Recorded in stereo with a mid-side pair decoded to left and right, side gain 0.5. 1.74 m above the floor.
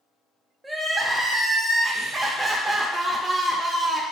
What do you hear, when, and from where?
0.6 s crying: 15° right, 0.7 m